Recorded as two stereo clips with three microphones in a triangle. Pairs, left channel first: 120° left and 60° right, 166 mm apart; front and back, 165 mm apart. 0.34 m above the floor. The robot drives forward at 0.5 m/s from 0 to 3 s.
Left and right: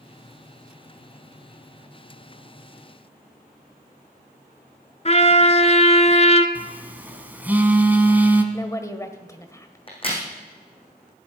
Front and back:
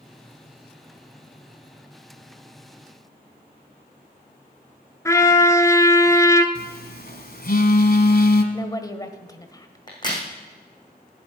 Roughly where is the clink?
I don't hear a clink.